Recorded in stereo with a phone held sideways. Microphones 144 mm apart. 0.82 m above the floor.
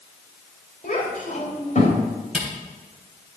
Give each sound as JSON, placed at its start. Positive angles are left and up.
{"t": 0.8, "sound": "a child speaking", "side_deg": 70, "distance_m": 3.0}
{"t": 2.3, "sound": "a camera shutter", "side_deg": -5, "distance_m": 3.5}